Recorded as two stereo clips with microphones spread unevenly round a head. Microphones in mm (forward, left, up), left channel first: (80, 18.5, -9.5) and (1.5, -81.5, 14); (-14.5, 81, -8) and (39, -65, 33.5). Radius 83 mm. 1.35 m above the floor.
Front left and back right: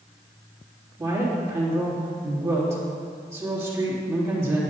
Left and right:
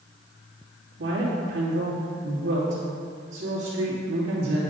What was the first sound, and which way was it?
A woman speaking, 65° right.